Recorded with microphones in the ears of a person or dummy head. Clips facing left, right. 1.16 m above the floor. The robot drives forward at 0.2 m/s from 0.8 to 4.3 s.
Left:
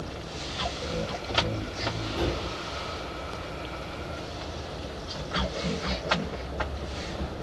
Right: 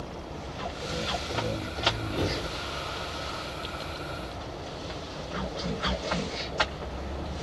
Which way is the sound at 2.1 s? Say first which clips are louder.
Left 2 dB; 45° right (ahead or behind).